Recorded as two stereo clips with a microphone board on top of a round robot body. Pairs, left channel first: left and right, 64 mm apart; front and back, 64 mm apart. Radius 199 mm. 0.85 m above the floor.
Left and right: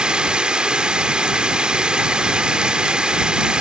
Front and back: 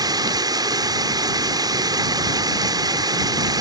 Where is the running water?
165° right.